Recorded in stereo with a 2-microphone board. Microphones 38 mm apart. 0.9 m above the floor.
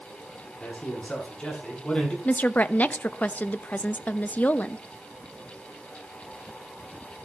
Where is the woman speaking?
45° left (ahead or behind), 0.8 m.